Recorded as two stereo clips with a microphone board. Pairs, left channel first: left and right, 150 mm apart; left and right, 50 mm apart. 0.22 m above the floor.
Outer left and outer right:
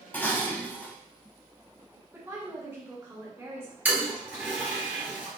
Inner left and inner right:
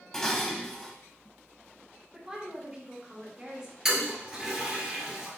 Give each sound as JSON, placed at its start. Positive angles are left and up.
{"t": 0.1, "sound": "dishes clattering", "side_deg": 10, "distance_m": 0.7}
{"t": 2.1, "sound": "a woman speaking", "side_deg": -15, "distance_m": 1.8}
{"t": 3.9, "sound": "a toilet flushing", "side_deg": -10, "distance_m": 1.5}